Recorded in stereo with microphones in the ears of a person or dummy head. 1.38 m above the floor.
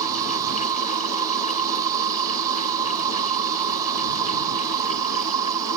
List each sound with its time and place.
0.0 s an insect: 20° right (ahead or behind)